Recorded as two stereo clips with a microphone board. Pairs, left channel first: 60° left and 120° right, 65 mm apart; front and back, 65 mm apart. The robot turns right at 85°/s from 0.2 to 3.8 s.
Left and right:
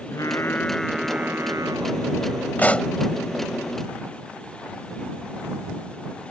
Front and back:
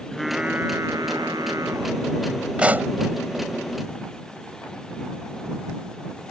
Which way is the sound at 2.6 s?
110° left.